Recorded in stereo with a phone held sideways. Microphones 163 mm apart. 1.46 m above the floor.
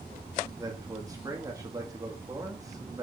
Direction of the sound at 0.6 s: 20° right (ahead or behind).